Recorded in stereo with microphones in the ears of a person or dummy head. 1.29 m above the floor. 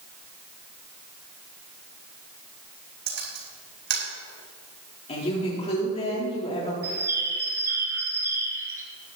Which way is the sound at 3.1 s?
55° right (ahead or behind).